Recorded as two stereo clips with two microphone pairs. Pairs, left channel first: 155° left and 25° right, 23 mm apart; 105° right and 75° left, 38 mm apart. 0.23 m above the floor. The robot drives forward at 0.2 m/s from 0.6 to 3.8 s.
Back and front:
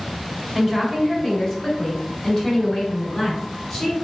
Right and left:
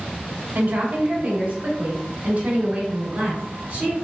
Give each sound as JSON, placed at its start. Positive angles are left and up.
{"t": 0.6, "sound": "a woman speaking", "azimuth_deg": 85, "distance_m": 1.2}